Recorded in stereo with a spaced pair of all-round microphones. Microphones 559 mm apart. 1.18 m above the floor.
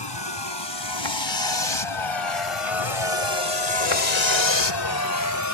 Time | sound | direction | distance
0.0 | a vehicle | 50° left (ahead or behind) | ?